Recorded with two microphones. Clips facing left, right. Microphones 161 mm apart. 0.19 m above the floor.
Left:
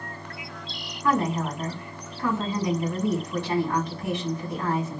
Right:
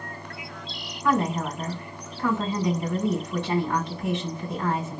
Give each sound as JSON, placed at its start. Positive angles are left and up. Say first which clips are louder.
{"t": 1.0, "sound": "a woman speaking", "louder": "even", "side_deg": -25, "distance_m": 1.9}